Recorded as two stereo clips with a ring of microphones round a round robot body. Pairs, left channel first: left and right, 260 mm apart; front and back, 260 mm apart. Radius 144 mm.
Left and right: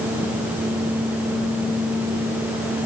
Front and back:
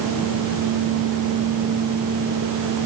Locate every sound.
Only background noise.